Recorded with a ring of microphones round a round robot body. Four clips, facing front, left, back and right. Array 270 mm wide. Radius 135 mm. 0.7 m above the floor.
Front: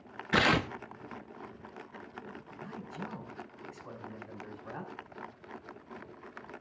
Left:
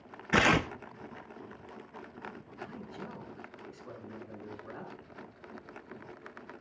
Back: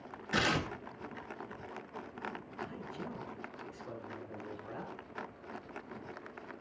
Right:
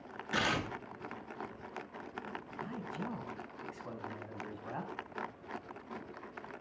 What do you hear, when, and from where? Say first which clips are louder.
0.3 s tearing paper: left 8 dB, front 5 dB; 60° left, 0.7 m
2.6 s a man speaking: right 2 dB, front 1 dB; 70° right, 4.5 m